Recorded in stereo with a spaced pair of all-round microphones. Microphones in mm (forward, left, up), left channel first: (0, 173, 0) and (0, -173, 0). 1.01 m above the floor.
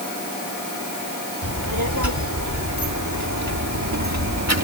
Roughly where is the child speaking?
Right.